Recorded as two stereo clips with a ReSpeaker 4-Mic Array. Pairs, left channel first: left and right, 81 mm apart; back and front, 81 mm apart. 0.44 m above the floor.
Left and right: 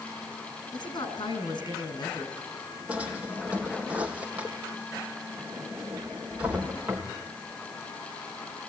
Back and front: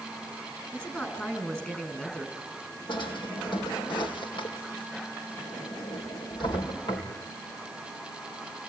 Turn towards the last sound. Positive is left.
turn(degrees=-165)